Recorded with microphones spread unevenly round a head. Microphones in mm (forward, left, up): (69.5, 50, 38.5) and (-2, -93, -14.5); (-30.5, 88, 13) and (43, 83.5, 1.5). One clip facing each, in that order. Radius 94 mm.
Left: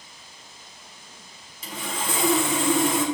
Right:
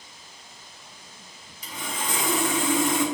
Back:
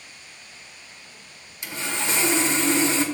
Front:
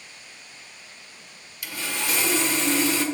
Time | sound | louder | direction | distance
1.6 | sawing | left 2 dB, back 2 dB | 120° left | 1.6 m